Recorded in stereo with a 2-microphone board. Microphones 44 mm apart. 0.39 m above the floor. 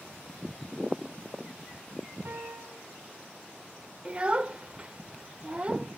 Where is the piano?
60° right (ahead or behind), 5 m.